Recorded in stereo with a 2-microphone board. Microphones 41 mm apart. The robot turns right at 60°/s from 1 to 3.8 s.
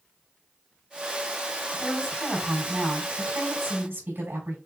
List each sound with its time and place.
1.7 s a woman speaking: 140° left, 4 m; by 4.6 s 95° right, 4 m